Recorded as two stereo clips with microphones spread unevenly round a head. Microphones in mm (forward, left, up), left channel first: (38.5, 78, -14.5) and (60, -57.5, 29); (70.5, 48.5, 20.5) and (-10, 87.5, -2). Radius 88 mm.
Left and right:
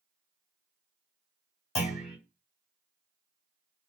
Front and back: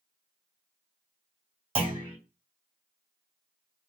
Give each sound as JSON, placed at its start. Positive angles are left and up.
{"t": 1.8, "sound": "a clunk", "azimuth_deg": 160, "distance_m": 2.0}